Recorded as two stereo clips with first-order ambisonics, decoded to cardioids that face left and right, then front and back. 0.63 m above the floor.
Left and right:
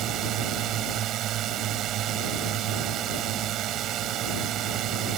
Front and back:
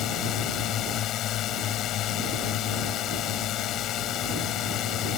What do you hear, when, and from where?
0.0 s a drone: 45° right